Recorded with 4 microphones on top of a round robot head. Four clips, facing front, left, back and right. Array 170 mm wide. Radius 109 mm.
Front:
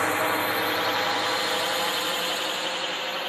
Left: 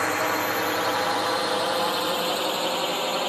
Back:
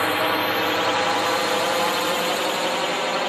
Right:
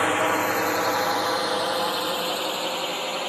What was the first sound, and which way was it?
A drone, 135° right.